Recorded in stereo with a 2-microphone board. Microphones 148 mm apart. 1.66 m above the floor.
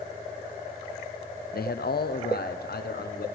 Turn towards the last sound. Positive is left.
turn(degrees=85)